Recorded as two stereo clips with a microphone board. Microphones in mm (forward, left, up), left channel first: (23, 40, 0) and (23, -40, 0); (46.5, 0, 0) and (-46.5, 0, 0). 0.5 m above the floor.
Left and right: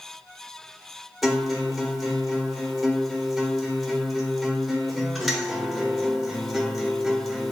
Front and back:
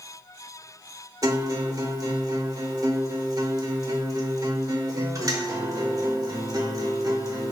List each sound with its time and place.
1.2 s a guitar: straight behind, 0.7 m